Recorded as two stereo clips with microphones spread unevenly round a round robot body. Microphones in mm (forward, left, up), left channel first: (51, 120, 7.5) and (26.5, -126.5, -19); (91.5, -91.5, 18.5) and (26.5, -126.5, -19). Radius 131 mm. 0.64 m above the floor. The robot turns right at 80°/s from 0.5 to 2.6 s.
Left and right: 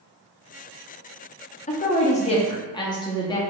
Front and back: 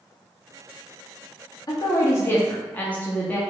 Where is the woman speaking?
70° left, 0.8 m; by 3.4 s 145° left, 0.8 m.